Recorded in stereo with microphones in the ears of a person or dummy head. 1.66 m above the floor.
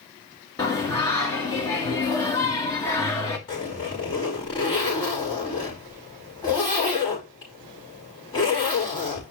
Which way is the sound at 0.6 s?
15° left (ahead or behind).